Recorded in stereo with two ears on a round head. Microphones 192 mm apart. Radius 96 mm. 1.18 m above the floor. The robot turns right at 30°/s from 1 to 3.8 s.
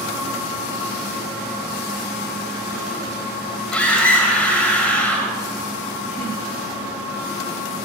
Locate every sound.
3.7 s a scream: 5° left (ahead or behind), 4.5 m